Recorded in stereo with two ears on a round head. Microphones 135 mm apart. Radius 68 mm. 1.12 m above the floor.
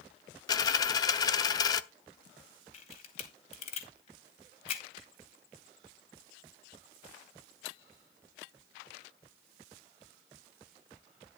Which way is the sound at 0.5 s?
25° left (ahead or behind).